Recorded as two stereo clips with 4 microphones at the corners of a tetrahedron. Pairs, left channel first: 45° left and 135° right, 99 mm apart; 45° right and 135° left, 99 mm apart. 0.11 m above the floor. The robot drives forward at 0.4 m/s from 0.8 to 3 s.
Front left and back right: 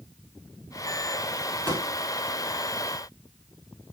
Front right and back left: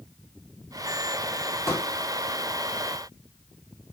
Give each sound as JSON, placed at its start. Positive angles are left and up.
{"t": 1.7, "sound": "a pop", "azimuth_deg": 180, "distance_m": 2.5}